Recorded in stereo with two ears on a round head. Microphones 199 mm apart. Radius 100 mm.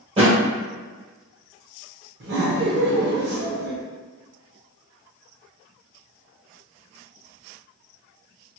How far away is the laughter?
About 0.7 m.